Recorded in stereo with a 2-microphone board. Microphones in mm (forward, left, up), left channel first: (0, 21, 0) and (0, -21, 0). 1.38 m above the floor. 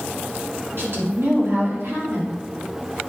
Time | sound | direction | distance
0.8 | a woman speaking | 65° right (ahead or behind) | 2.5 m